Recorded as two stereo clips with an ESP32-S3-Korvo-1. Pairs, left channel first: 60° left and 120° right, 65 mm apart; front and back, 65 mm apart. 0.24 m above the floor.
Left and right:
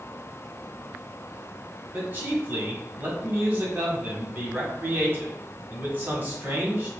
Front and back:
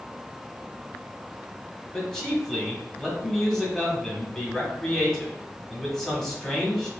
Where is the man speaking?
80° right, 1.3 m.